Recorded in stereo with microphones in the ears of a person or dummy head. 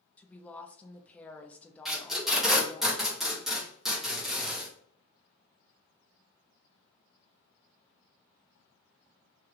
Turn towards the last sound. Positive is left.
turn(degrees=0)  # may be behind; listen again after turning